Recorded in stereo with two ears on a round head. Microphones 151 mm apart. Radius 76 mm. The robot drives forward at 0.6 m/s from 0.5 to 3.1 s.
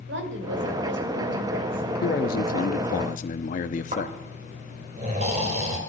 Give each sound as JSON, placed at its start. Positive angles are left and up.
{"t": 0.1, "sound": "a woman speaking", "side_deg": -75, "distance_m": 2.5}
{"t": 2.0, "sound": "a man speaking", "side_deg": 50, "distance_m": 0.9}
{"t": 3.9, "sound": "snoring", "side_deg": -45, "distance_m": 3.0}